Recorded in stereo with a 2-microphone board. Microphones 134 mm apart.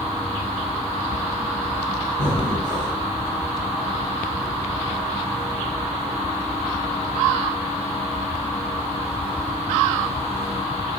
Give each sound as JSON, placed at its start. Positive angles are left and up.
{"t": 2.2, "sound": "breathing", "side_deg": 70, "distance_m": 2.0}